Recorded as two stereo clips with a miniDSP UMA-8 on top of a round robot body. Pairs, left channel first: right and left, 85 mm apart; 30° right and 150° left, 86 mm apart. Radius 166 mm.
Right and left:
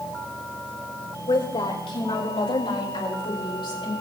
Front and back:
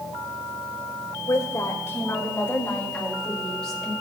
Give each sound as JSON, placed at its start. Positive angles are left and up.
{"t": 1.3, "sound": "a woman speaking", "azimuth_deg": -80, "distance_m": 4.0}